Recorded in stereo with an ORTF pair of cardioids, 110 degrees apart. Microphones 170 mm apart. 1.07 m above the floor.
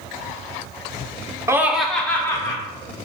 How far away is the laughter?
About 0.6 m.